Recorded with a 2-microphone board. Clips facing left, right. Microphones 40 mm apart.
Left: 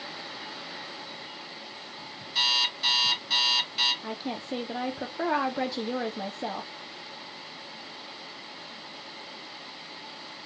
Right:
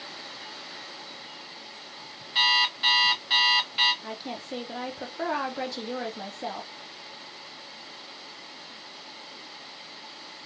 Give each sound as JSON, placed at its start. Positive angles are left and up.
{"t": 2.4, "sound": "an alarm clock", "side_deg": -20, "distance_m": 2.5}
{"t": 4.0, "sound": "a woman speaking", "side_deg": 10, "distance_m": 0.6}